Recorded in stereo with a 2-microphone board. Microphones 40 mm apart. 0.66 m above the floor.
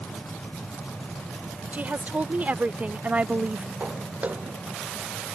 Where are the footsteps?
35° right (ahead or behind).